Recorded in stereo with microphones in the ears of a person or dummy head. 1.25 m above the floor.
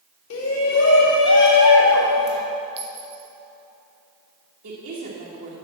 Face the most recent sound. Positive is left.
turn(degrees=-60)  # may be behind; listen again after turning